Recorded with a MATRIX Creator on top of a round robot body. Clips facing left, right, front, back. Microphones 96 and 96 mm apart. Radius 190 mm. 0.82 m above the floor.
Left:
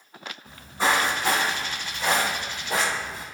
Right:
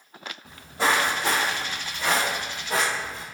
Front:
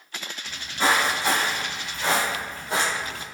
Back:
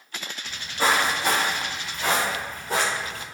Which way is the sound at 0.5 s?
120° right.